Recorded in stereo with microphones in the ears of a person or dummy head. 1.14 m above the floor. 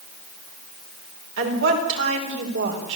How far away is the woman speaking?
About 4.5 m.